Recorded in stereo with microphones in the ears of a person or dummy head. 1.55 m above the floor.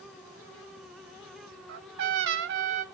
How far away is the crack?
No crack in this recording.